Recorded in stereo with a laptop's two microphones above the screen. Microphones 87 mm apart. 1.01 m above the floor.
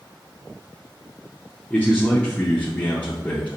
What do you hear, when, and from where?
1.7 s a man speaking: 15° left (ahead or behind), 0.5 m